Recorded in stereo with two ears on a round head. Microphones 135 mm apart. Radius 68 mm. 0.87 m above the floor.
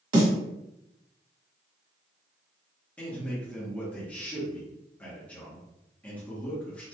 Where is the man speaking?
10° left (ahead or behind), 1.0 m.